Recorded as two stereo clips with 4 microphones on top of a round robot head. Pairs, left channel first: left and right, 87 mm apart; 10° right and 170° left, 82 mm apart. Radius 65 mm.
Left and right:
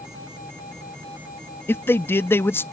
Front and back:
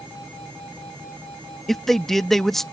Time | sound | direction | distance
1.7 | a man speaking | 70° left | ?